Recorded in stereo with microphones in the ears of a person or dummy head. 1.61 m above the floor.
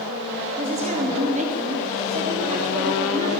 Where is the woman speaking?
40° right (ahead or behind), 3 m.